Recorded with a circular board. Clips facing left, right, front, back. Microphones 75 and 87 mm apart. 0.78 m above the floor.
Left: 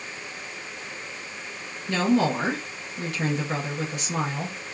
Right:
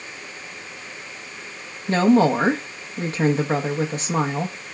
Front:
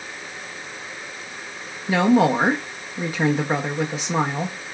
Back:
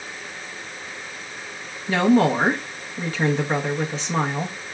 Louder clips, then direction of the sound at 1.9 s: Right 6 dB, front 1 dB; 75° right.